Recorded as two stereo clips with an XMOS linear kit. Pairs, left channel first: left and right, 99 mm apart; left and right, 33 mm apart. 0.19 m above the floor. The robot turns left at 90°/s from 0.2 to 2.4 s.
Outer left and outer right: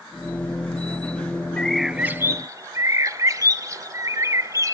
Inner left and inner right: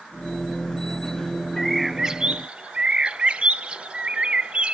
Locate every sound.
1.6 s a bird: 20° left, 0.6 m; by 4.8 s 55° right, 0.6 m